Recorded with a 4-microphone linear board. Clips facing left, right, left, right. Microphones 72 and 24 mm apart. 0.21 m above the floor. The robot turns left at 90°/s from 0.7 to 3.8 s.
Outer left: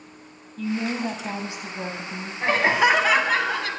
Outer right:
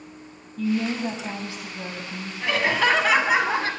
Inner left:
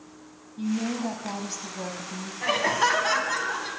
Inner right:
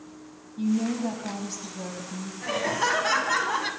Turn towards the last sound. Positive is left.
turn(degrees=-65)